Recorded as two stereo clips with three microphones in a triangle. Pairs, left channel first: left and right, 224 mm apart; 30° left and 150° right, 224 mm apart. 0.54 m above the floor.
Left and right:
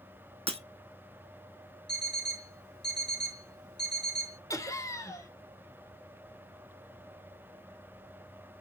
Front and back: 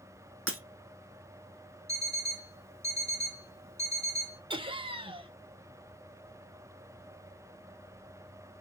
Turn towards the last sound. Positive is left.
turn(degrees=160)